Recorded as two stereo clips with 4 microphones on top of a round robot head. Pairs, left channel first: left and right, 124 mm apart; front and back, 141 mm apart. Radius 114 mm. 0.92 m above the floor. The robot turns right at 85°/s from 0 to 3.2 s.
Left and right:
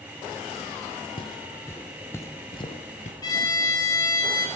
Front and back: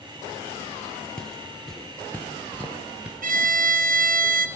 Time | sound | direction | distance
1.2 | footsteps | 80° left | 1.0 m
3.2 | a violin | 155° left | 1.5 m